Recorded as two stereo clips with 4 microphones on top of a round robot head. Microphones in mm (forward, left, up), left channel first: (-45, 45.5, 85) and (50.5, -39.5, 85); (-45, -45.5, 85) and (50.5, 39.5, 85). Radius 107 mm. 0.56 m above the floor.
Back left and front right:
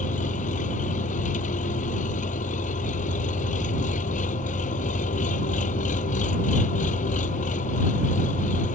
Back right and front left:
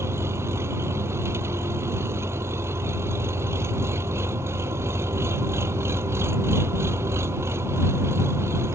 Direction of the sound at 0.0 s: 115° left.